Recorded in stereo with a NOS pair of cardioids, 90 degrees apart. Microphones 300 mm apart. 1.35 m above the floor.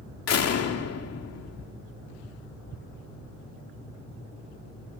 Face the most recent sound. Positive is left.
turn(degrees=60)